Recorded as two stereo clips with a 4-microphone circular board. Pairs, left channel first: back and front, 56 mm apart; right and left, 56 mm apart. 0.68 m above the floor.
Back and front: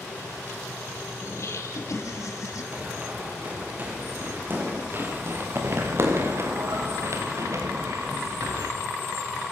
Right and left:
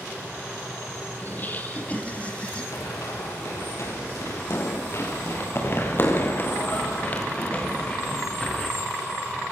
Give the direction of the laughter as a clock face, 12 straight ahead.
5 o'clock.